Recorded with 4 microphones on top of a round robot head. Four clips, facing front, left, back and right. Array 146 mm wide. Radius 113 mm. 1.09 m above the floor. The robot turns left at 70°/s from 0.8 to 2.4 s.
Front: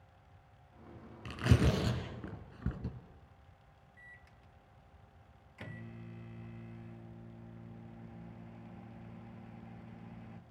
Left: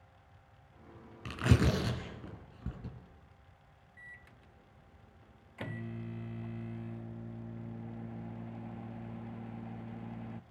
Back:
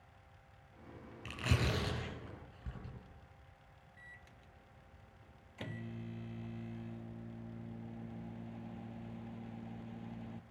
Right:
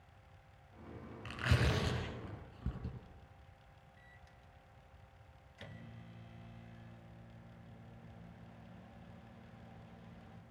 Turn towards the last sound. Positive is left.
turn(degrees=110)